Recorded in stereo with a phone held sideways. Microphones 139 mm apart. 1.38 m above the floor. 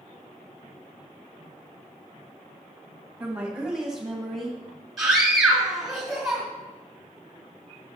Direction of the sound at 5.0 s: 5° right (ahead or behind).